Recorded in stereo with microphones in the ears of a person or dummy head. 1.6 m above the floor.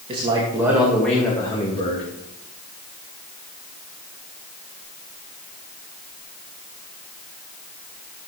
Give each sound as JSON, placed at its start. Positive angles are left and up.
{"t": 0.1, "sound": "a man speaking", "side_deg": -30, "distance_m": 2.5}